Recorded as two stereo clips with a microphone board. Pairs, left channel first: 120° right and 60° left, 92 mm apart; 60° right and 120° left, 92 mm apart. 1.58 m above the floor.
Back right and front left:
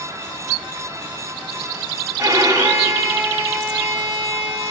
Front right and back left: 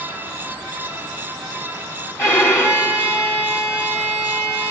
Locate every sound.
2.2 s a violin: straight ahead, 3 m